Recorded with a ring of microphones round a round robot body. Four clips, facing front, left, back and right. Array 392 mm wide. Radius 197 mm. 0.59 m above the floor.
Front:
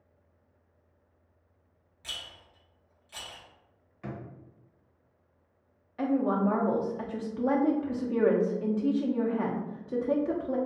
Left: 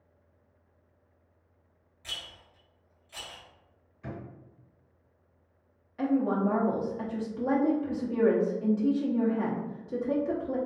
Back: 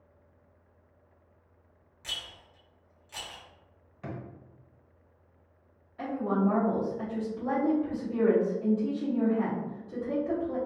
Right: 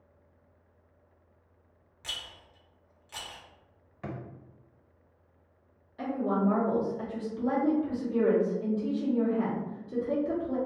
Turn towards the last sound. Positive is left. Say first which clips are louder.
# left 2 dB, front 2 dB
turn(degrees=15)